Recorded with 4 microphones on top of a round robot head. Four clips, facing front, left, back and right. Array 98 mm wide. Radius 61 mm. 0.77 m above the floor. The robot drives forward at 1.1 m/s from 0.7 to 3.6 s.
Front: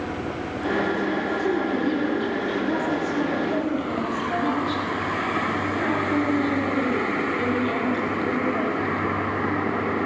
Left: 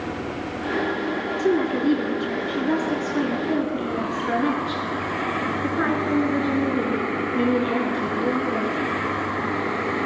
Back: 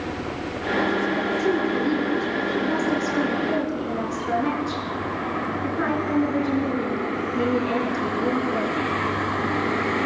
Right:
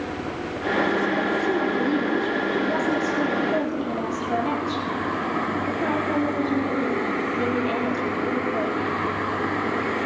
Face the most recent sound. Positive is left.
turn(degrees=110)